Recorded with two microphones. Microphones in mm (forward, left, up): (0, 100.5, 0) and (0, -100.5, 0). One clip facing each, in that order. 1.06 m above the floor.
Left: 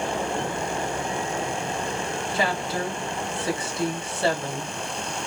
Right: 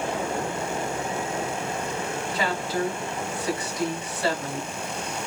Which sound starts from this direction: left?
A woman speaking, at 2.3 s.